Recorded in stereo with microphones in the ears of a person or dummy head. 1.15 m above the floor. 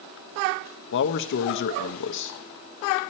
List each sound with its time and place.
0.9 s a man speaking: 60° left (ahead or behind), 0.7 m